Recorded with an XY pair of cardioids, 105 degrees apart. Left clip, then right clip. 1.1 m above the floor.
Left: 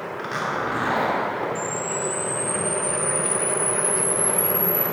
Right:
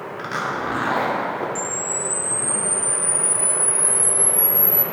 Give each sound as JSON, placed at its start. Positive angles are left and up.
{"t": 0.2, "sound": "a zipper", "azimuth_deg": -10, "distance_m": 1.4}
{"t": 1.6, "sound": "a camera shutter", "azimuth_deg": -60, "distance_m": 1.0}